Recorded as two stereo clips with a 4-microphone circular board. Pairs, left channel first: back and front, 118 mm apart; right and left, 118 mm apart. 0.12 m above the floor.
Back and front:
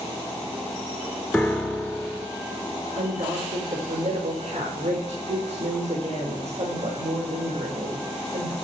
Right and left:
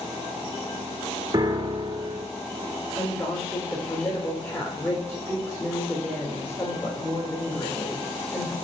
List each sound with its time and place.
1.3 s a piano: 105° left, 1.2 m
3.0 s a woman speaking: 20° right, 6 m